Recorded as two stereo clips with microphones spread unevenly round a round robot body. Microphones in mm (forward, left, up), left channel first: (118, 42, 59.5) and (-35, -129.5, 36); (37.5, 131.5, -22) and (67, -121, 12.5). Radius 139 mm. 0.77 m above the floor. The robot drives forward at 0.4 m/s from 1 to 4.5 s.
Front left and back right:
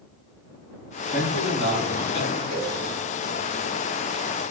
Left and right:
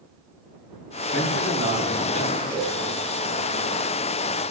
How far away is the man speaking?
About 5 m.